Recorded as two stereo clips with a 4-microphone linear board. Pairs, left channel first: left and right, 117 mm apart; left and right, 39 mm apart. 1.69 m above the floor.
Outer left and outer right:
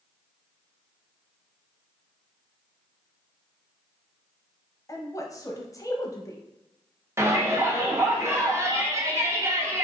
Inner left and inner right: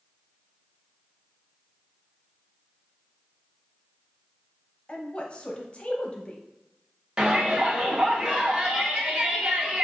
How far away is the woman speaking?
About 0.6 m.